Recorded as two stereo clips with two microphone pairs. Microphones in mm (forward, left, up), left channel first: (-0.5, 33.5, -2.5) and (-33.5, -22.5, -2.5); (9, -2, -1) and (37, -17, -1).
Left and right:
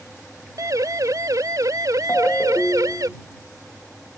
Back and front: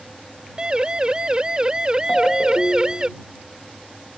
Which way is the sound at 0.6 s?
90° right.